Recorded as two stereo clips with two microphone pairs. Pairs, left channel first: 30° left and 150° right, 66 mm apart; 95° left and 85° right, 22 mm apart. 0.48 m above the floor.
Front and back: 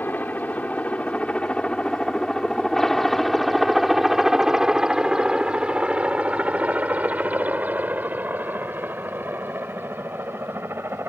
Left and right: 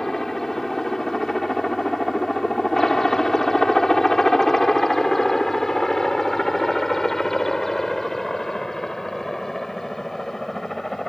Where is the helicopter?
35° left; by 11.1 s 165° left.